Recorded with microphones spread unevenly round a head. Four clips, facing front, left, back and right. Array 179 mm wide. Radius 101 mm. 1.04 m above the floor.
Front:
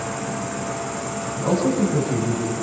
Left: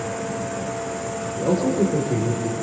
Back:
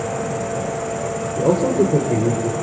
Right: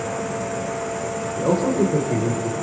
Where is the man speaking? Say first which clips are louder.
Right 1 dB, back 4 dB; 165° left, 5 m.